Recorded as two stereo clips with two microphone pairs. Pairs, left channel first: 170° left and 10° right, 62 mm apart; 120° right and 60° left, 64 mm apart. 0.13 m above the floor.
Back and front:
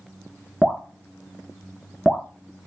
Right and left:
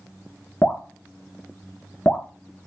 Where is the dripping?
105° right, 0.6 m.